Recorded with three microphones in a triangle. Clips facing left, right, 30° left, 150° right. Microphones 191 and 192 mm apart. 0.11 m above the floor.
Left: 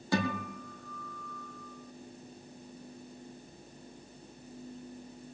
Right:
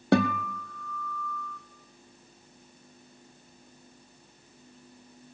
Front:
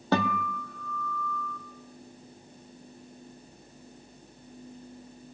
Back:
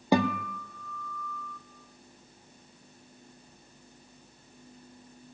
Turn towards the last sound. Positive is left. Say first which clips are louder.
# right 8 dB, back 2 dB
turn(degrees=-75)